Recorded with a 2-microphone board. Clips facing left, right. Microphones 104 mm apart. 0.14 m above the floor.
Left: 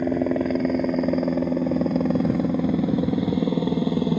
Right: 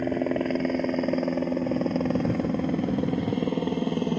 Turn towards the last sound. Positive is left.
turn(degrees=5)  # may be behind; listen again after turning